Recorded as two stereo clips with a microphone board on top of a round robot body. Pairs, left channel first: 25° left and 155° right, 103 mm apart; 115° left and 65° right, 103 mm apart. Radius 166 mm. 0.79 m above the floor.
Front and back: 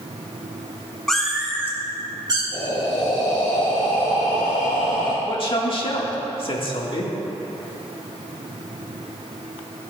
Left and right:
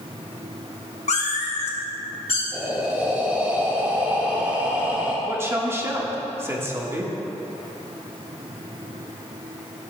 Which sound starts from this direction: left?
A cat meowing, at 1.1 s.